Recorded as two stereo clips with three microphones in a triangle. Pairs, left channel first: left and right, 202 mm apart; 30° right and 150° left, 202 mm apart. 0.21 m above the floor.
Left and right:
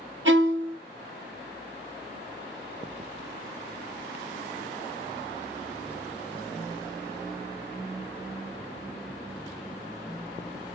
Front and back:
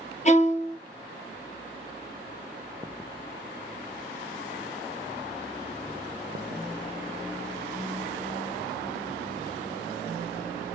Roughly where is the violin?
Right.